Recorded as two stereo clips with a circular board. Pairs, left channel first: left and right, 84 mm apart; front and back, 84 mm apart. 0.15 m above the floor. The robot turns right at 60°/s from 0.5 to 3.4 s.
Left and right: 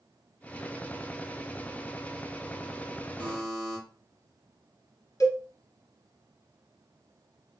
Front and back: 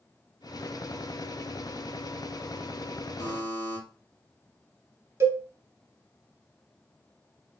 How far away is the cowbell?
About 1.3 m.